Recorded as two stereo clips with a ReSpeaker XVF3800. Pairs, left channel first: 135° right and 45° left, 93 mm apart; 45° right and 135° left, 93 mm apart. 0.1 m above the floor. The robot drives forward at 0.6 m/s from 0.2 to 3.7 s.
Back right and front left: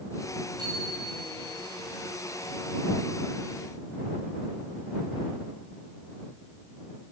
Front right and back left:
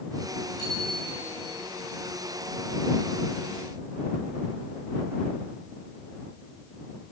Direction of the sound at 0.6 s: Straight ahead.